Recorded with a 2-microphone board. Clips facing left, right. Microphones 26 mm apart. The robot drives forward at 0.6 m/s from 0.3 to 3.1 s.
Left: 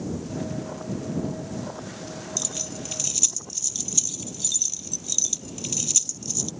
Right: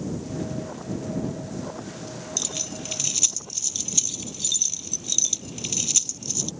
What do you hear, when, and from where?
2.4 s keys jangling: 20° right (ahead or behind)